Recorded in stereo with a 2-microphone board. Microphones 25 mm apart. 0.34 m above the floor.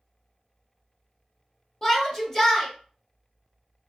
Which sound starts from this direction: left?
A shout, at 1.8 s.